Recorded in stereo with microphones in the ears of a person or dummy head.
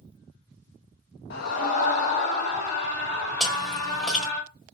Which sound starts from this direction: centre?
Chewing, at 3.4 s.